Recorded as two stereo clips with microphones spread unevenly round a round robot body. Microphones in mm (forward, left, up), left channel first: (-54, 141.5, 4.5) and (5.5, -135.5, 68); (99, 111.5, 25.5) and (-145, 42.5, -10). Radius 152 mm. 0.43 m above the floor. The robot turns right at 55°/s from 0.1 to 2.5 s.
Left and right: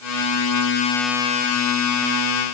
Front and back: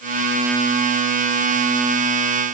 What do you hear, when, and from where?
Only background noise.